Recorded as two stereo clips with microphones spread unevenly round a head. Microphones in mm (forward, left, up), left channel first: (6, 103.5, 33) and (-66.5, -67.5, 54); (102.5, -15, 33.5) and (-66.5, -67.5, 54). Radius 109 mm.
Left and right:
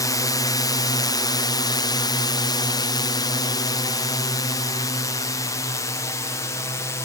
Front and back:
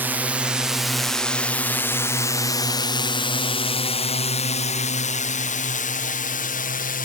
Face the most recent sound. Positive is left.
turn(degrees=-5)